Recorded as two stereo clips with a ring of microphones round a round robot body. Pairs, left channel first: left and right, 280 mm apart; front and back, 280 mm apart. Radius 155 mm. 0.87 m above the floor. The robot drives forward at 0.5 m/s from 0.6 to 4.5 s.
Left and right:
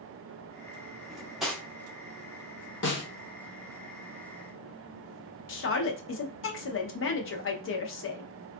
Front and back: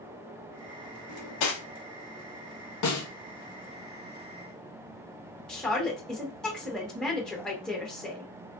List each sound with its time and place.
1.1 s cutlery clinking: straight ahead, 0.9 m
2.8 s a snare drum: 35° left, 1.0 m; by 3.1 s 40° left, 0.9 m
5.5 s a woman speaking: 85° left, 0.7 m